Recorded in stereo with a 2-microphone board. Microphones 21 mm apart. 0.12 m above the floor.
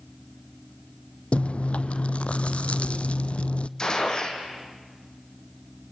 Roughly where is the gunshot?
Left.